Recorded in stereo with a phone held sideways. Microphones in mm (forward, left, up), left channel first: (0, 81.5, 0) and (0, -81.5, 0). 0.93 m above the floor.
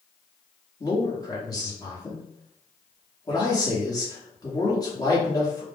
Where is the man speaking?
25° left (ahead or behind), 1.0 m.